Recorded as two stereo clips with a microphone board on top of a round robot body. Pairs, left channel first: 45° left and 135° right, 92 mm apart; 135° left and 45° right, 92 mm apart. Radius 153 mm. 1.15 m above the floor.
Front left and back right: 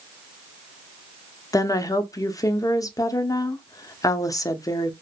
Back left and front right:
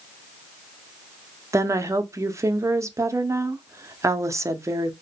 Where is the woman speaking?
5° left, 0.6 m.